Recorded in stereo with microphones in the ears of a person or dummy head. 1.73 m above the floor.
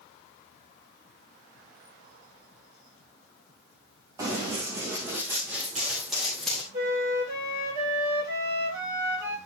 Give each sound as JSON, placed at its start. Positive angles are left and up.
{"t": 4.2, "sound": "running footsteps", "side_deg": -15, "distance_m": 4.0}
{"t": 6.7, "sound": "a flute", "side_deg": -20, "distance_m": 6.5}